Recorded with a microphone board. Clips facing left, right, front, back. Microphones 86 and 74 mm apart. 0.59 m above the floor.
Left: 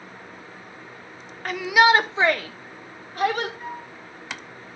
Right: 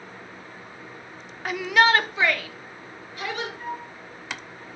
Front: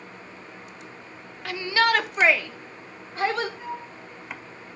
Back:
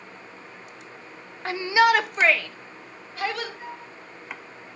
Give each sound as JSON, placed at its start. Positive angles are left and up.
{"t": 1.4, "sound": "a shout", "azimuth_deg": -170, "distance_m": 0.7}
{"t": 3.6, "sound": "a flute", "azimuth_deg": -115, "distance_m": 5.5}